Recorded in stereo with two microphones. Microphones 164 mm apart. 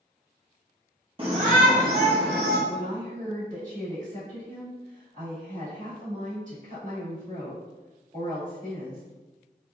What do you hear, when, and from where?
1.2 s a shout: 30° right (ahead or behind), 0.6 m; by 2.6 s 75° right (ahead or behind), 1.0 m
2.7 s a woman speaking: 45° right (ahead or behind), 1.9 m